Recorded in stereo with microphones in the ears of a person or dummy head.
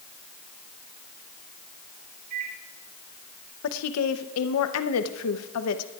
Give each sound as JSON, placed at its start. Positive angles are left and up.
{"t": 2.3, "sound": "a microwave", "side_deg": -55, "distance_m": 4.0}
{"t": 3.6, "sound": "a woman speaking", "side_deg": 80, "distance_m": 0.8}